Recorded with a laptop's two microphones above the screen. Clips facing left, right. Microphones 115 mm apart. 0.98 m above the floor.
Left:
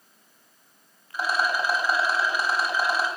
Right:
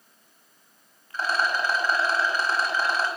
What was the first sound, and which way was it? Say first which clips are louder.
A rattle: even; 10° left (ahead or behind).